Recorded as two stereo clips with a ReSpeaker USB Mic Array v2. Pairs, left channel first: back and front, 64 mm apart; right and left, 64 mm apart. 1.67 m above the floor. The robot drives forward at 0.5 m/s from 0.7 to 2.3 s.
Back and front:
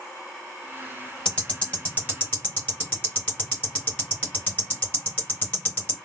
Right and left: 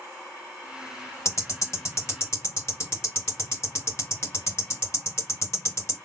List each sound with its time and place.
1.2 s ticking: 115° right, 1.7 m; by 6.0 s 130° right, 1.9 m